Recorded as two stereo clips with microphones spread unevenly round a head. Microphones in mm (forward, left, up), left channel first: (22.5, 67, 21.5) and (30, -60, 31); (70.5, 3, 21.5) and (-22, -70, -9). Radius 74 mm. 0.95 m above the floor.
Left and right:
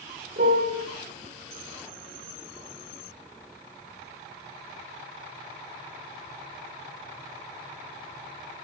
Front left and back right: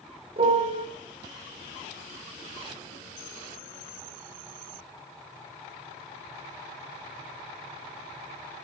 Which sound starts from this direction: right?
A piano, at 0.4 s.